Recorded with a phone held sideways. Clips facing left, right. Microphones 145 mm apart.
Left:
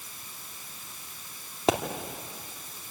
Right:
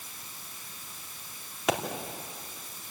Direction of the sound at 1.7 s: 30° left (ahead or behind).